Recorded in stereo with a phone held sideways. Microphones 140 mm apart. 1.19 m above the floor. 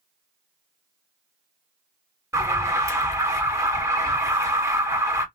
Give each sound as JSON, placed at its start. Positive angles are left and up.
{"t": 2.3, "sound": "an alarm", "side_deg": -20, "distance_m": 1.3}